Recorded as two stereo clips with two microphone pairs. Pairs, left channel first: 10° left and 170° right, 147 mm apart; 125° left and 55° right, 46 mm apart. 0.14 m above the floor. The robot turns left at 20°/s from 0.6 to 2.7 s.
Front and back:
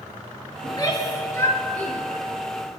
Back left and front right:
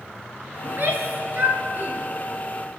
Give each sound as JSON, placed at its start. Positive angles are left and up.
{"t": 0.6, "sound": "a shout", "azimuth_deg": -45, "distance_m": 2.0}